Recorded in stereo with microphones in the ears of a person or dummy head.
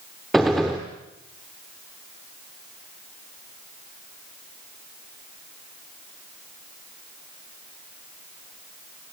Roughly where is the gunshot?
Centre.